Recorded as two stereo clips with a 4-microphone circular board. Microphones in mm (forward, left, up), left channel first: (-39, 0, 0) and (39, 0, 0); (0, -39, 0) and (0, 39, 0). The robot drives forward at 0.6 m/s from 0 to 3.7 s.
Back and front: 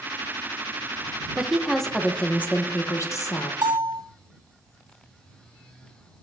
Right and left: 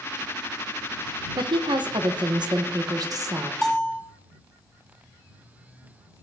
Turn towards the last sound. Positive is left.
turn(degrees=0)